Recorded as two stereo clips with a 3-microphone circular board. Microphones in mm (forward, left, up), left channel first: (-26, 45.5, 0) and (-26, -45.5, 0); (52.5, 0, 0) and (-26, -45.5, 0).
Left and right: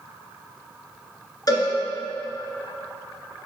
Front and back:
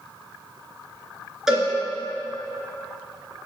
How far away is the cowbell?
About 1.6 m.